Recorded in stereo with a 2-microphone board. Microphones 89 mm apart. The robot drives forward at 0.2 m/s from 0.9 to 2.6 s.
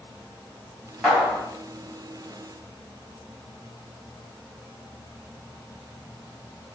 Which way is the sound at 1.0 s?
5° left (ahead or behind).